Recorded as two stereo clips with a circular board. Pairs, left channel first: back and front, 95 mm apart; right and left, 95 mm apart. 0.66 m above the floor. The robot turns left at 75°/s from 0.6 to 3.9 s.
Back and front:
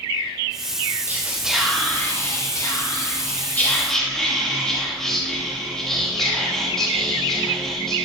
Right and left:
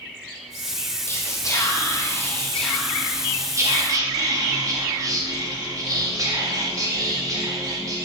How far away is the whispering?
About 0.7 m.